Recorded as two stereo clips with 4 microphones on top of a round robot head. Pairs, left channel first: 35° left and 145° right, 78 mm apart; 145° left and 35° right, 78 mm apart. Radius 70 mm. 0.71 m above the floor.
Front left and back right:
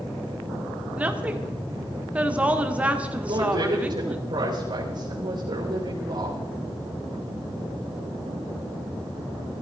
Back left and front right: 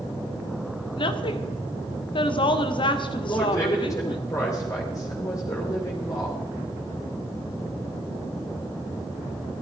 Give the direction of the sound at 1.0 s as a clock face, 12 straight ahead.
7 o'clock.